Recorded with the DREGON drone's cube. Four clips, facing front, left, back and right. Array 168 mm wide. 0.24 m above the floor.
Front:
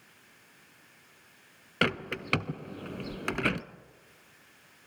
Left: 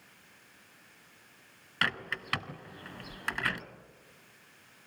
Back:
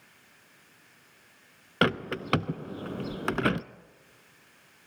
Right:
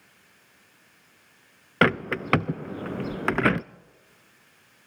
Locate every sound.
1.8 s a bird: 105° right, 0.5 m